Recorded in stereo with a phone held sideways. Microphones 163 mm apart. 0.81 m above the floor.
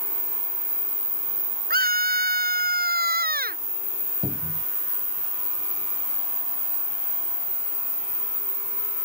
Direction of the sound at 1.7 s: 85° right.